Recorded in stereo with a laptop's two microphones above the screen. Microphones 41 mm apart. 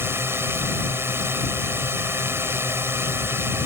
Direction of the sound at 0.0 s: 75° right (ahead or behind).